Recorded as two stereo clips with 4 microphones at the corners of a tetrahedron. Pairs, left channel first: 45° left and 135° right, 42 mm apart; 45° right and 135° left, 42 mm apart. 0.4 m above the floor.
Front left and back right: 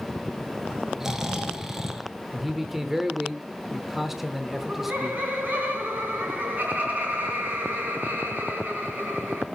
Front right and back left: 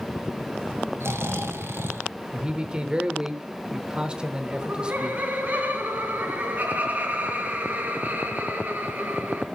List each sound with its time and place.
1.0 s snoring: 145° left, 1.0 m
2.3 s a man speaking: 150° left, 0.8 m
4.5 s laughter: straight behind, 3.5 m